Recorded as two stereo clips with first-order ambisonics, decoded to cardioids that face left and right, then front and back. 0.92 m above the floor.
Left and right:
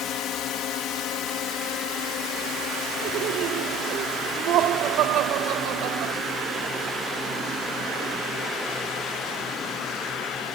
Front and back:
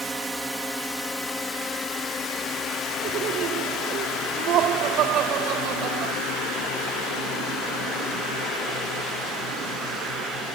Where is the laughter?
135° right.